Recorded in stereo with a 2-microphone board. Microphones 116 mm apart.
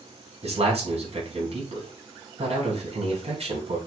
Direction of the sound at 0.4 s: 65° right (ahead or behind).